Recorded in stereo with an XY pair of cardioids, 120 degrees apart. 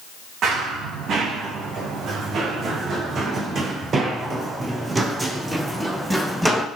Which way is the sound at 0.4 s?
65° right.